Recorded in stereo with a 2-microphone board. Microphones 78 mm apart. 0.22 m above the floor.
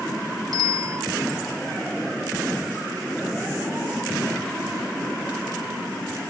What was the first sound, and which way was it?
A bicycle bell, 55° right (ahead or behind).